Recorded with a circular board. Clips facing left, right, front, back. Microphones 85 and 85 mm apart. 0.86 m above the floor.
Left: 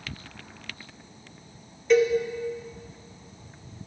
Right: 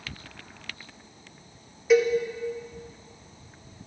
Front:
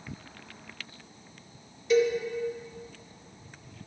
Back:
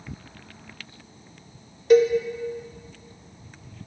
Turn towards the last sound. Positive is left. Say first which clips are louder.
# even, back 7 dB
turn(degrees=-170)